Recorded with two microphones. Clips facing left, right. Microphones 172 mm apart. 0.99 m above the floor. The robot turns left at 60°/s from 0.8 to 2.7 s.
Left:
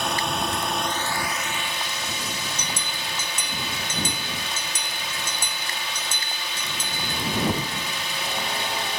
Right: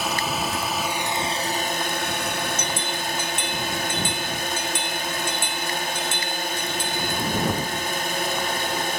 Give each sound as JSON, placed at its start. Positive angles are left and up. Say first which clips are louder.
{"t": 0.0, "sound": "a drone", "louder": "even", "azimuth_deg": -5}
{"t": 2.6, "sound": "a bell", "louder": "right 5 dB", "side_deg": 35}